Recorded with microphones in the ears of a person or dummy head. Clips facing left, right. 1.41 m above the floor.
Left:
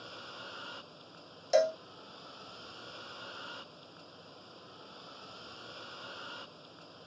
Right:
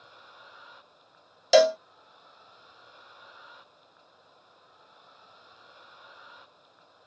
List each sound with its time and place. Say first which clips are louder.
0.0 s a vehicle: left 6 dB; 40° left (ahead or behind)
1.5 s a cowbell: right 8 dB; 65° right (ahead or behind)